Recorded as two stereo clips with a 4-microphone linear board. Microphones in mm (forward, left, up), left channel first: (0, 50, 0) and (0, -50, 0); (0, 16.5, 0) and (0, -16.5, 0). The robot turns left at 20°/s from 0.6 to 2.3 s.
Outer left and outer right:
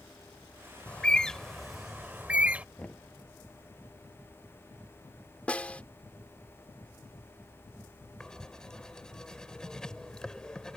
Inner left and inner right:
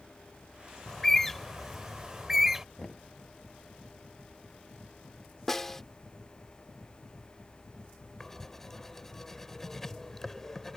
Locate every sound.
0.9 s a bird: 15° left (ahead or behind); by 2.6 s 15° right (ahead or behind)
2.8 s knocking: 15° left (ahead or behind)
5.5 s a snare drum: 15° left (ahead or behind)
8.2 s writing: 5° left (ahead or behind)